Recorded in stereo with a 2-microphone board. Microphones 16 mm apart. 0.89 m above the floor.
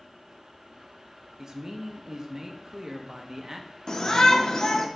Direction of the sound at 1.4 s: 35° right (ahead or behind).